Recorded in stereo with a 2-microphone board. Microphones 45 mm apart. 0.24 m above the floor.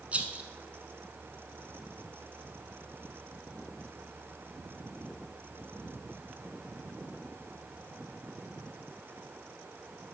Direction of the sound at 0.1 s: 35° right (ahead or behind).